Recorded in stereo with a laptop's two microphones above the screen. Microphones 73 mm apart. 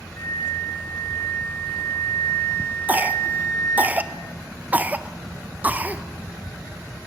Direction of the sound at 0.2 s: 35° left (ahead or behind).